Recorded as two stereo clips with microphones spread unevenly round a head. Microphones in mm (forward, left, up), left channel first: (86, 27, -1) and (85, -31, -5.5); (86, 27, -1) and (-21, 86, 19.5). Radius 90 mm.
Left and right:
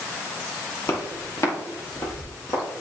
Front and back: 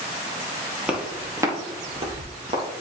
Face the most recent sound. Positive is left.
turn(degrees=130)